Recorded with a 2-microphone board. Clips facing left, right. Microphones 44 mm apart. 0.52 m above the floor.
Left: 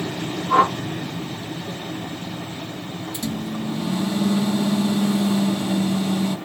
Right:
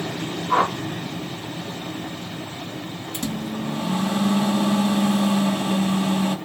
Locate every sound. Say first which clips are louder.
0.5 s a whoosh: left 3 dB; 5° right (ahead or behind), 1.1 m
3.1 s a microwave: even; 50° right (ahead or behind), 1.6 m